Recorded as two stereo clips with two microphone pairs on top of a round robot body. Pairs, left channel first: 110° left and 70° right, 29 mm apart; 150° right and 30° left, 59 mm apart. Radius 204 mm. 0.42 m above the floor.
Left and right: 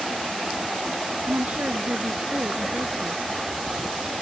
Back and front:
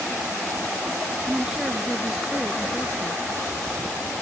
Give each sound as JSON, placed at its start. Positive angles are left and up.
{"t": 1.3, "sound": "a woman speaking", "azimuth_deg": -50}